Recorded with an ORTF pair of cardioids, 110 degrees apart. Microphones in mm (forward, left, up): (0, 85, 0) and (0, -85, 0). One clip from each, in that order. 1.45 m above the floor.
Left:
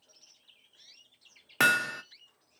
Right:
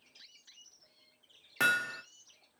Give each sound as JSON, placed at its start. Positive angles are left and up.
{"t": 1.6, "sound": "hammering", "azimuth_deg": 35, "distance_m": 0.8}